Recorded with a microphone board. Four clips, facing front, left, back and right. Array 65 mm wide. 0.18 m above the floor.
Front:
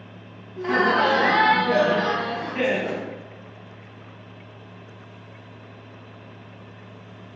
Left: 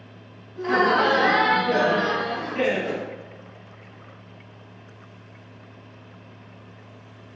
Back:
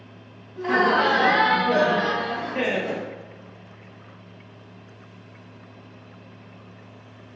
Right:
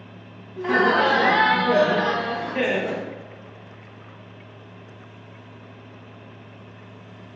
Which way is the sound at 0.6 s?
95° right.